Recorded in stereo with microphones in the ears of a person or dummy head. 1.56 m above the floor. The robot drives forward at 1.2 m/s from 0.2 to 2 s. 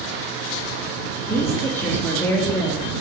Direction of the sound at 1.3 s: 15° left (ahead or behind).